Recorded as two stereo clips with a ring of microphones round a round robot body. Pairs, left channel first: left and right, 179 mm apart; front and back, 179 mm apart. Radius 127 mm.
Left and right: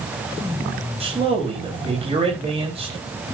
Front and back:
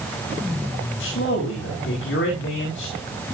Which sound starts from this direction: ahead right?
A man speaking, at 1.0 s.